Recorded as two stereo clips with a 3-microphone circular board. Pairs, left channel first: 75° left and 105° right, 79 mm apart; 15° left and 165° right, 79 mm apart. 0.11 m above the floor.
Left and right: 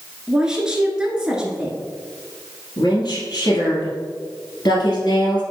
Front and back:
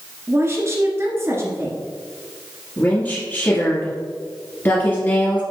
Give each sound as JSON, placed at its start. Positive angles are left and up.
{"t": 0.3, "sound": "a woman speaking", "azimuth_deg": -175, "distance_m": 1.7}
{"t": 2.8, "sound": "a woman speaking", "azimuth_deg": 75, "distance_m": 2.5}